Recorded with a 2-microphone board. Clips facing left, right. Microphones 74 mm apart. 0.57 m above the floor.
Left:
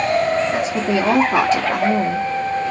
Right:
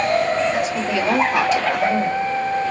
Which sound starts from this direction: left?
A woman speaking, at 0.5 s.